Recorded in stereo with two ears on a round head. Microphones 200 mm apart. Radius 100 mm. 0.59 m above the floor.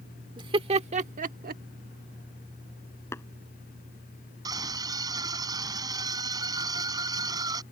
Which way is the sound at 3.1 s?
10° left (ahead or behind).